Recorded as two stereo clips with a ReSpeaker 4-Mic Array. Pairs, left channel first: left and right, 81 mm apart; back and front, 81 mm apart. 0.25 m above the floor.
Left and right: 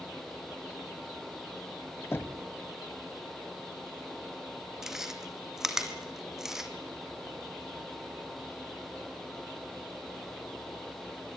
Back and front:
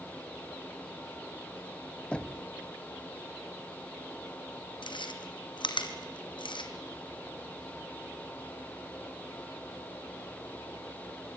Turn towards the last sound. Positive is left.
turn(degrees=-175)